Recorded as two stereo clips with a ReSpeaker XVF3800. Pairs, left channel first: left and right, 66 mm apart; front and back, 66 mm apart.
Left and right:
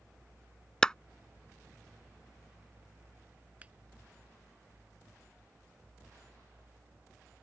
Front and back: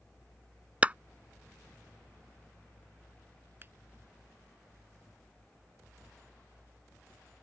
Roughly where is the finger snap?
Behind right.